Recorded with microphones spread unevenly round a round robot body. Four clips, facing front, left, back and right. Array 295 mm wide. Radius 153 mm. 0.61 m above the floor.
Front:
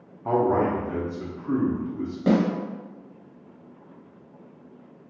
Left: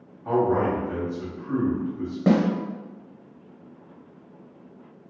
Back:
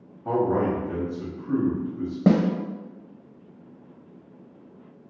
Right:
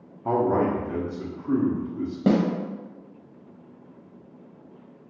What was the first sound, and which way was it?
A man speaking, 30° right.